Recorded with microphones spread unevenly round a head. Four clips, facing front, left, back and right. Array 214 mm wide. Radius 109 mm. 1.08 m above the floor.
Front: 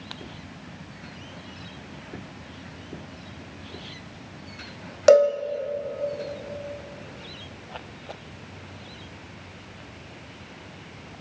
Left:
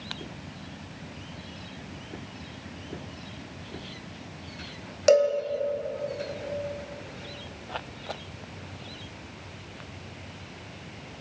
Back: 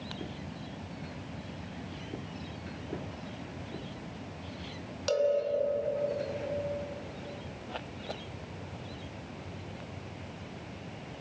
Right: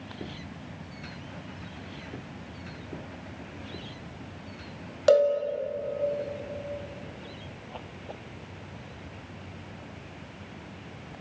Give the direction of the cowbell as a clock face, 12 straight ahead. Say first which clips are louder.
Even, front 12 dB; 12 o'clock.